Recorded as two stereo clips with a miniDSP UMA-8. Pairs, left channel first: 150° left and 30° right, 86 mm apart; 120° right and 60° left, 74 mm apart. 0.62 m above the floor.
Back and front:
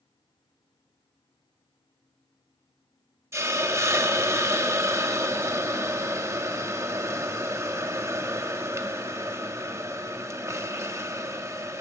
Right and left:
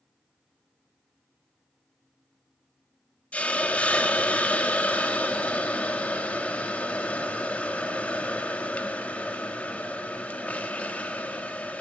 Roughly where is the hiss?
Ahead right.